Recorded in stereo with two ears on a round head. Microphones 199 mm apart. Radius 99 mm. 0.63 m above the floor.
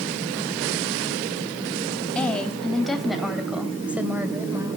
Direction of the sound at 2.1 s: 5° left (ahead or behind).